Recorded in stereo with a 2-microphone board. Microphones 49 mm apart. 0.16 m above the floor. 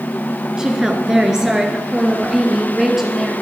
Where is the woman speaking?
15° right (ahead or behind), 2.5 m; by 3.3 s 5° right (ahead or behind), 4 m.